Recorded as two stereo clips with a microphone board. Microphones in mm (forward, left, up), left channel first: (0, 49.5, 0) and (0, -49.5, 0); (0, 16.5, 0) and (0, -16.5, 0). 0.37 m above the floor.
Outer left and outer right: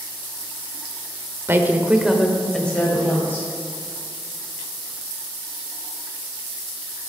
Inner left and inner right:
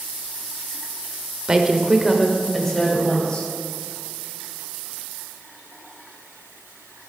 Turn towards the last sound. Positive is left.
turn(degrees=20)  # may be behind; listen again after turning